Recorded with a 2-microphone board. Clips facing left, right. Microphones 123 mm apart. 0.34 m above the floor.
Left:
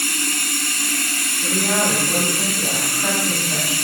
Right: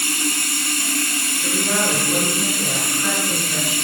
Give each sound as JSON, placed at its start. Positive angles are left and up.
{"t": 0.0, "sound": "running water", "side_deg": -25, "distance_m": 0.7}
{"t": 1.4, "sound": "a woman speaking", "side_deg": 60, "distance_m": 1.8}